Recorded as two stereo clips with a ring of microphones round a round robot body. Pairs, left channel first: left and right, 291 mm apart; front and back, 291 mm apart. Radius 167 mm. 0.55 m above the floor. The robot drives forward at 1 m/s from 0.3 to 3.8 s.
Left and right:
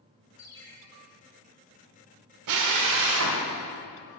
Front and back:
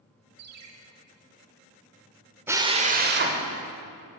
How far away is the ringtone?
About 1.1 m.